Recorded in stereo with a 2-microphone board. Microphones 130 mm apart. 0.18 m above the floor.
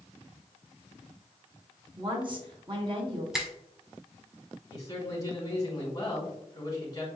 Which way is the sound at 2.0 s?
40° right (ahead or behind).